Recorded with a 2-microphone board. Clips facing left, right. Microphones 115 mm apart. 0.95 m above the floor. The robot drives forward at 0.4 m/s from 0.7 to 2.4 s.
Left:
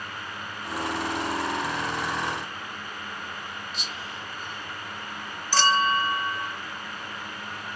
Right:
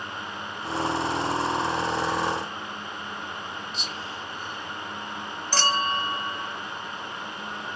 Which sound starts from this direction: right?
A clink, at 5.5 s.